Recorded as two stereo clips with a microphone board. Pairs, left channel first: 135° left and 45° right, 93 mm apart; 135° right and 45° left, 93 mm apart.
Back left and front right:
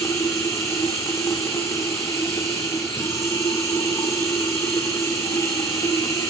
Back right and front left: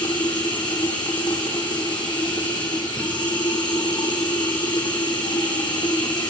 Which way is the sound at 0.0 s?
165° right.